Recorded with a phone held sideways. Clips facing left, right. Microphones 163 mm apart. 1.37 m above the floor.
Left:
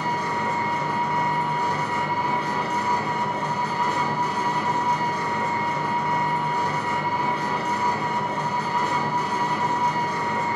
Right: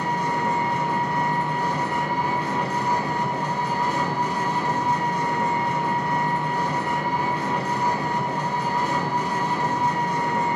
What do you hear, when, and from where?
0.0 s an engine running: 25° right (ahead or behind), 2.5 m